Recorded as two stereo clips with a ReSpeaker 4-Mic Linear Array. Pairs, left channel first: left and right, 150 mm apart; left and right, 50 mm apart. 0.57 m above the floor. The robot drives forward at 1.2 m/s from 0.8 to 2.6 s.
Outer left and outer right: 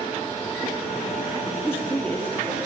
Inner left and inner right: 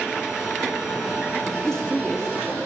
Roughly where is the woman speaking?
Centre.